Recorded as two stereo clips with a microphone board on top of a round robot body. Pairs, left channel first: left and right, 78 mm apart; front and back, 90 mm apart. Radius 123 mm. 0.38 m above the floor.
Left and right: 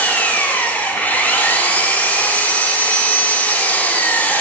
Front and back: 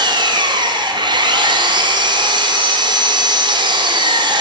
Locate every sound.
0.0 s an engine running: 155° left, 0.8 m